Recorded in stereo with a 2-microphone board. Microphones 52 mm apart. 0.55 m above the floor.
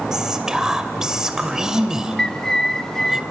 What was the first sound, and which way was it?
Whispering, 10° right (ahead or behind).